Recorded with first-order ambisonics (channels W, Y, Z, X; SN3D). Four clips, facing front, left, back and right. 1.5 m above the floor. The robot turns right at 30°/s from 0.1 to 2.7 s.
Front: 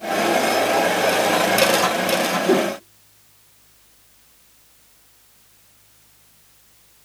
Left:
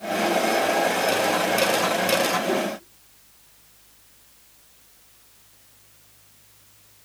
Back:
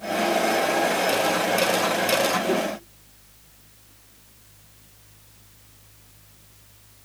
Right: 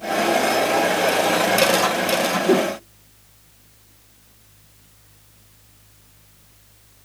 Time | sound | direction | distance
2.5 | a whoosh | 55° right | 0.8 m